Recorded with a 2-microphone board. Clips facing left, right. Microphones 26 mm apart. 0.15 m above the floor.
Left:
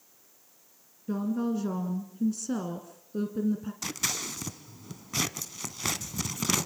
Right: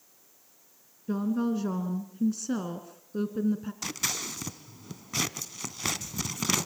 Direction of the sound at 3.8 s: 10° right (ahead or behind).